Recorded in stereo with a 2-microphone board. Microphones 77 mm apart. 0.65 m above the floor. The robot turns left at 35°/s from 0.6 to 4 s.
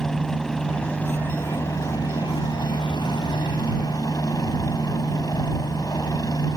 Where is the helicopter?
175° left; by 6.6 s 55° left.